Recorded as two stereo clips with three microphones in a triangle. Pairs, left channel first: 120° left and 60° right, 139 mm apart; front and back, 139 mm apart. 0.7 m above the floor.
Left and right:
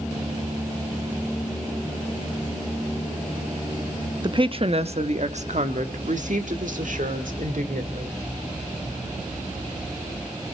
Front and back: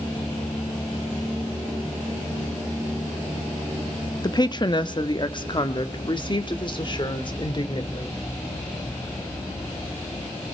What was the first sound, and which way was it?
A woman speaking, 35° right.